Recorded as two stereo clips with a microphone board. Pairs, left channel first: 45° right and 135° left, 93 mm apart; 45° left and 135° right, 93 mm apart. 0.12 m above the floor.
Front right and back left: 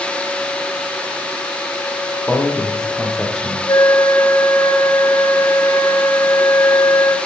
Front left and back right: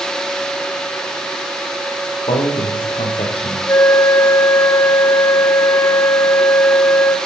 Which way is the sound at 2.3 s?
35° left.